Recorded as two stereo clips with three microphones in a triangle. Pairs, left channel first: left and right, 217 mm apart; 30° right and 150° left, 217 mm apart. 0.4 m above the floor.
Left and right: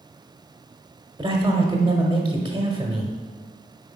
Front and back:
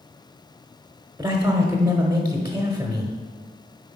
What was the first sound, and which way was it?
A man speaking, 140° right.